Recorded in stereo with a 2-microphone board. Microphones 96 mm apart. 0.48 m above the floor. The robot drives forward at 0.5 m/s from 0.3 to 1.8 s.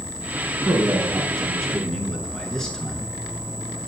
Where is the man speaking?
5° left (ahead or behind), 7 m.